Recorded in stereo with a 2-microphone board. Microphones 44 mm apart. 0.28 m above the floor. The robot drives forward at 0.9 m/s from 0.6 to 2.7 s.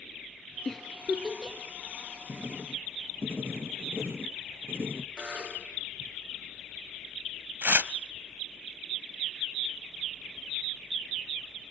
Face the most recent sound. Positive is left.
turn(degrees=-55)  # may be behind; listen again after turning